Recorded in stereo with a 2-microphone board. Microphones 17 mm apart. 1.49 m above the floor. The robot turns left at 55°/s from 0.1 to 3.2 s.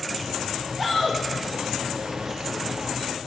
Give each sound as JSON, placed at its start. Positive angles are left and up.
{"t": 0.8, "sound": "a shout", "side_deg": 5, "distance_m": 2.5}